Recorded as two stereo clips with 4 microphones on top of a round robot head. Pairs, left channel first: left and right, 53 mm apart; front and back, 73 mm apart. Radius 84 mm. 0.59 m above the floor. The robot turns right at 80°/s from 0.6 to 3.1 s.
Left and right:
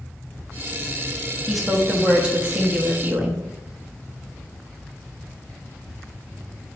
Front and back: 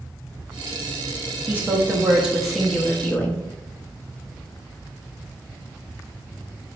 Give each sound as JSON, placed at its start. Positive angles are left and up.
{"t": 1.5, "sound": "a woman speaking", "azimuth_deg": -175, "distance_m": 0.9}